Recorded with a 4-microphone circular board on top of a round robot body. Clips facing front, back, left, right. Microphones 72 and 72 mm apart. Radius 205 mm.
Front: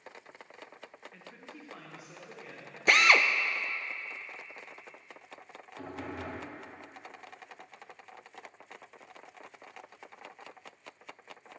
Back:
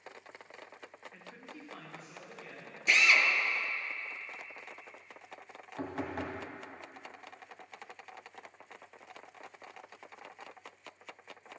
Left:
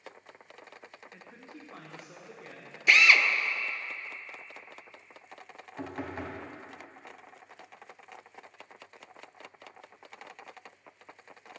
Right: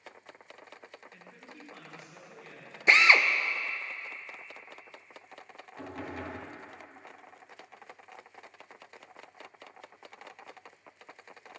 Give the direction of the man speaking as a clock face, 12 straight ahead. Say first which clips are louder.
Even, left 2 dB; 8 o'clock.